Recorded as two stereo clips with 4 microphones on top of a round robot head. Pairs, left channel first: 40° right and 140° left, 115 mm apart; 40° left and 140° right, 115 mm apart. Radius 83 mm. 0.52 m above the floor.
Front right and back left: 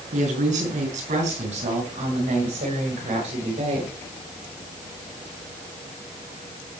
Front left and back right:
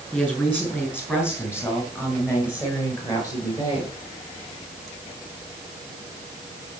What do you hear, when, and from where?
0.1 s a woman speaking: 120° left, 7.5 m; by 3.9 s 100° left, 8.5 m